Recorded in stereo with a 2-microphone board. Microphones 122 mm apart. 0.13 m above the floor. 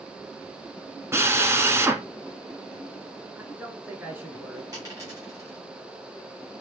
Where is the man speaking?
15° right (ahead or behind), 1.1 m.